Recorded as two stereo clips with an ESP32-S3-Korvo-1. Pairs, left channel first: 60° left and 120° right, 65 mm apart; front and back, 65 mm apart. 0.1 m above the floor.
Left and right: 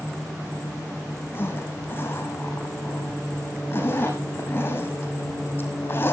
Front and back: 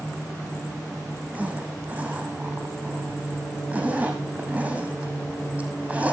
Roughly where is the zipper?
Left.